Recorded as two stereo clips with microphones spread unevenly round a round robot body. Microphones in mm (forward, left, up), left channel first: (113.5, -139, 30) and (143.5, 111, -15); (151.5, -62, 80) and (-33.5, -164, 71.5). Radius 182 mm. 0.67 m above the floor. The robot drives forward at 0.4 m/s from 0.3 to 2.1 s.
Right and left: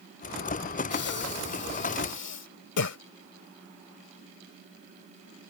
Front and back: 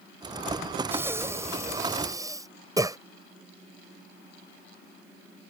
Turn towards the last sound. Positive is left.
turn(degrees=-80)